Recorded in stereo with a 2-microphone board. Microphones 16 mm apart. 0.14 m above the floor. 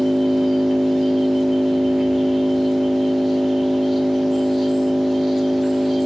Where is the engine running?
35° right (ahead or behind), 1.2 m.